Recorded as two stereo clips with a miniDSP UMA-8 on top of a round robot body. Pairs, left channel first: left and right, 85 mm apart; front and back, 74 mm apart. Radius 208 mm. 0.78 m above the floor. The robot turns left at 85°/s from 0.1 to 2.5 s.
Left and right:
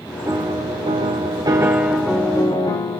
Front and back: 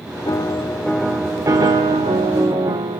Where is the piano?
35° right, 0.6 m; by 3.0 s 135° left, 0.6 m.